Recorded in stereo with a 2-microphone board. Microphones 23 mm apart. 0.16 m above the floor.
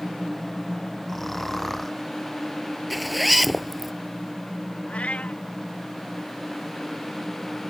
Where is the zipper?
Centre (ahead or behind).